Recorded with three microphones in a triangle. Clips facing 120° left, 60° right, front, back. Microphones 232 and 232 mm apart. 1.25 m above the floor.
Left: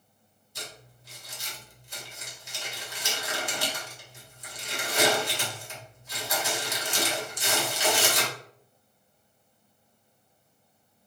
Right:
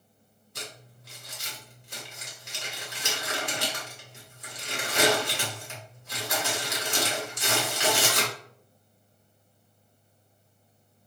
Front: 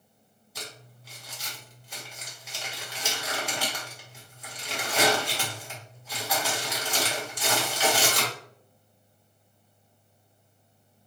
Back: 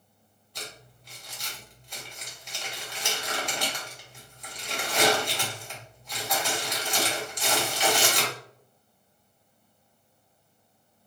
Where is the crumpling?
85° right, 1.1 m.